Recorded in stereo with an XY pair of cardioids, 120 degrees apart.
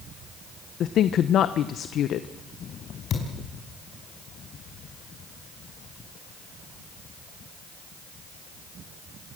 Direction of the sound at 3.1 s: 55° left.